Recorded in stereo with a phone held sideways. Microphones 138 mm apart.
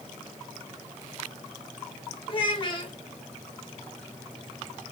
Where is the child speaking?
40° left (ahead or behind), 1.3 m.